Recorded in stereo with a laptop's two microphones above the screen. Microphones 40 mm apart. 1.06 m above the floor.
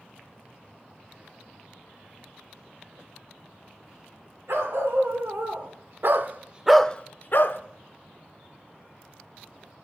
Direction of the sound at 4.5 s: 75° right (ahead or behind).